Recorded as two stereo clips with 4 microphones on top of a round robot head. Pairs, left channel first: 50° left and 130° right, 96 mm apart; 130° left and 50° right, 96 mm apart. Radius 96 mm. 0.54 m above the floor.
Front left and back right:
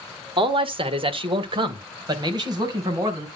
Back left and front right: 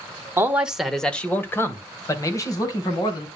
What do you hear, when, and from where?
0.4 s a man speaking: 110° right, 1.6 m; by 3.3 s straight behind, 4.5 m